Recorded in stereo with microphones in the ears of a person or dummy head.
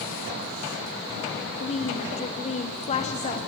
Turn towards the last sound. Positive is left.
turn(degrees=30)  # may be behind; listen again after turning